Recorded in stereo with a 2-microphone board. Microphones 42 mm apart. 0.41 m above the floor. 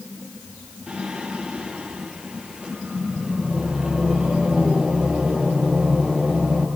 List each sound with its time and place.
0.9 s singing: 20° right (ahead or behind), 5.5 m